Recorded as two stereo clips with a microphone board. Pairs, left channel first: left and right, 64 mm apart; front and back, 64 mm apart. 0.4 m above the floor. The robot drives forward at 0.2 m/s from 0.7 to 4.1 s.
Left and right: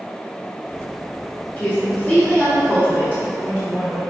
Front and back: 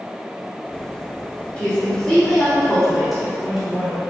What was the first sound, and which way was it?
A woman speaking, 55° left.